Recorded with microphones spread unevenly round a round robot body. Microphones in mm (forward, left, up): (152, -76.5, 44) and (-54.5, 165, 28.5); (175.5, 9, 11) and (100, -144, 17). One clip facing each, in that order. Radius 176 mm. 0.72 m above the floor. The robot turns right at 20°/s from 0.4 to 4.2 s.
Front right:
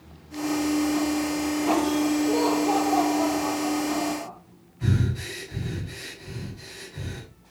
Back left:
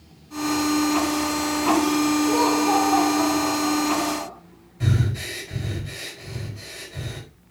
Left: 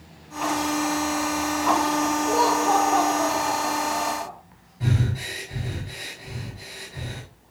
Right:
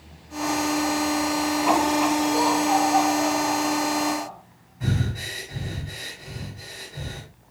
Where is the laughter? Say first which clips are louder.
Back left 2 dB, even; 60° left, 2 m; by 4.3 s 95° left, 2 m.